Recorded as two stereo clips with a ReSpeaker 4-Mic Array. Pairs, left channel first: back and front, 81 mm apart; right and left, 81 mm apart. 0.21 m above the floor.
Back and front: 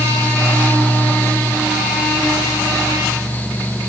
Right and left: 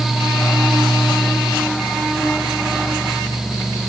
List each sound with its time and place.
Only background noise.